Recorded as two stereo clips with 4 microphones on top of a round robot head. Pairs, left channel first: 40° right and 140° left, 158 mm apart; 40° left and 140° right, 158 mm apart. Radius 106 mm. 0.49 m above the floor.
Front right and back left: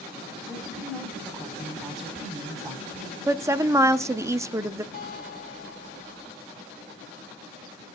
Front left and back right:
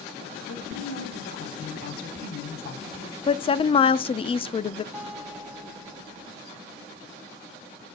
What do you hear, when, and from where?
0.5 s a woman speaking: 55° left, 4 m
3.3 s a woman speaking: 75° left, 0.9 m
4.9 s a guitar: 60° right, 4 m